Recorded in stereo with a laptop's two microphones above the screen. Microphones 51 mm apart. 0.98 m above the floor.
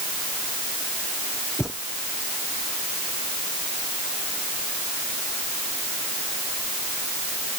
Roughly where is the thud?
Centre.